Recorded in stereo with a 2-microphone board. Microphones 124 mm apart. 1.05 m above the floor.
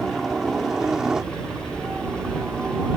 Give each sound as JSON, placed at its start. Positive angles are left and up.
{"t": 0.0, "sound": "a helicopter", "side_deg": 0}